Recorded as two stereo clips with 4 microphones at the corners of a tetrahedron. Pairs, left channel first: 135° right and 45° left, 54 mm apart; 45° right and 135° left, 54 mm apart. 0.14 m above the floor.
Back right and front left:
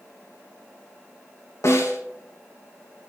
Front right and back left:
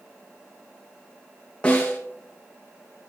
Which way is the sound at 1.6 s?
115° right.